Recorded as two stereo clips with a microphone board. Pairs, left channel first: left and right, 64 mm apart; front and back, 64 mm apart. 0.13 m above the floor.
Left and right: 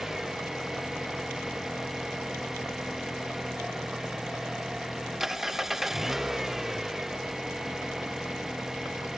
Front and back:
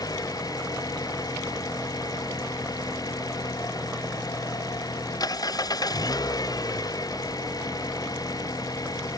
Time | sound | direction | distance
0.0 | an engine running | 5° right | ?